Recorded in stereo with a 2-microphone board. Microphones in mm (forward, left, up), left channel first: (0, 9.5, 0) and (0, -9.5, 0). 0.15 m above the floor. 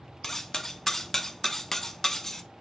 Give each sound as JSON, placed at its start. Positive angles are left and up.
{"t": 0.2, "sound": "cutlery clinking", "side_deg": 20, "distance_m": 0.6}